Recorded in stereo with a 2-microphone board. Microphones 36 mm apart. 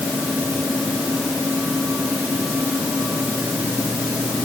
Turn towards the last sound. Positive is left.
No sound to turn to.